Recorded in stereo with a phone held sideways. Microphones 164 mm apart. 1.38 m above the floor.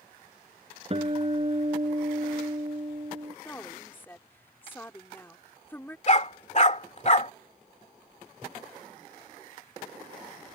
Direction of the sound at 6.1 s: 45° left (ahead or behind).